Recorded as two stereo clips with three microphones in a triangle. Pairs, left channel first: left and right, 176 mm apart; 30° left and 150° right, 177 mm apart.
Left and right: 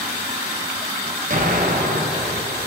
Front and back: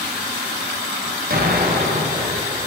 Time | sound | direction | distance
1.3 | an explosion | 125° right | 1.2 m